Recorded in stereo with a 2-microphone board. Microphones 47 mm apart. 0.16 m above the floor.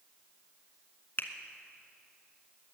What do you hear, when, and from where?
1.2 s a finger snap: 45° left (ahead or behind), 1.1 m